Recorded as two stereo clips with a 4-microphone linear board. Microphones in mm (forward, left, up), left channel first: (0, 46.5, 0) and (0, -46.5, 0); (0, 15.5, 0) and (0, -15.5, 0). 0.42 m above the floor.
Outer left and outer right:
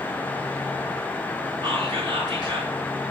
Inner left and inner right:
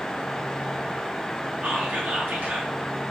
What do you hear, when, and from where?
1.6 s whispering: 55° right (ahead or behind), 5 m